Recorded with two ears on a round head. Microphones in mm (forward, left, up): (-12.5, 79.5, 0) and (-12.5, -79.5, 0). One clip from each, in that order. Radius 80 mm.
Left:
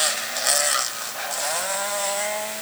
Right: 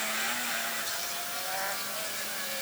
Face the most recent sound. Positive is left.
No sound to turn to.